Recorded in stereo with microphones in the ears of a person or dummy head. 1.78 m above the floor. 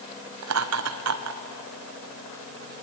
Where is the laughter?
85° right, 1.6 m.